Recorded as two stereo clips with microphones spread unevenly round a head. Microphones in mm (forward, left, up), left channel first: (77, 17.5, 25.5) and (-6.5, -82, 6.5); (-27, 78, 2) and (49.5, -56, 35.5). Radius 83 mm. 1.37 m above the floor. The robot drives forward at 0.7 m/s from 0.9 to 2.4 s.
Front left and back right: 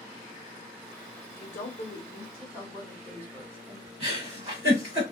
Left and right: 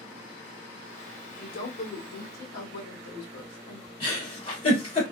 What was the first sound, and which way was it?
A woman speaking, 90° left.